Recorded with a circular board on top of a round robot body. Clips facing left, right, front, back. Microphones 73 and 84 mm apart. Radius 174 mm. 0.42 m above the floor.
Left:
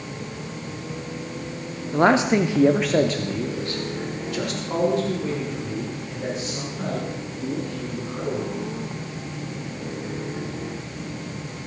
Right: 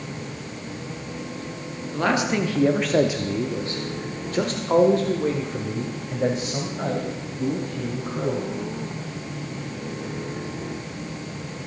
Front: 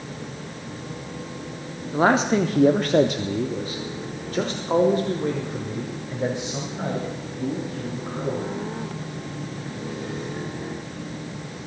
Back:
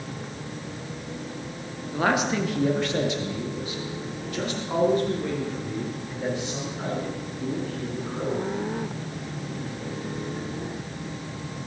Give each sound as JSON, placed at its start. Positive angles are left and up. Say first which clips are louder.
{"t": 1.9, "sound": "a man speaking", "louder": "left 5 dB, front 5 dB", "azimuth_deg": 50, "distance_m": 1.2}